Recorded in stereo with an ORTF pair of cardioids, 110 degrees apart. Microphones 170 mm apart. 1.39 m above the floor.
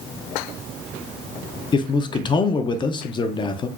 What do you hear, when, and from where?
1.7 s a man speaking: 30° left, 0.5 m